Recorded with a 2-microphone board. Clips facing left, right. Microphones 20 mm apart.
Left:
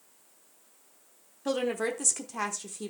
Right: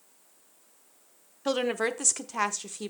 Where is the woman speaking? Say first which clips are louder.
Right 2 dB; 20° right (ahead or behind), 1.0 m.